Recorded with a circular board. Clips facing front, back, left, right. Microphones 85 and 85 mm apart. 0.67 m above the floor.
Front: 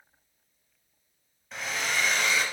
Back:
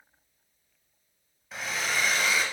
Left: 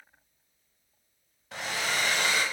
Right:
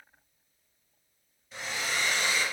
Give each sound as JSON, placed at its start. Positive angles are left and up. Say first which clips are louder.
{"t": 1.5, "sound": "a hair dryer", "louder": "even, left 2 dB", "azimuth_deg": 90, "distance_m": 1.3}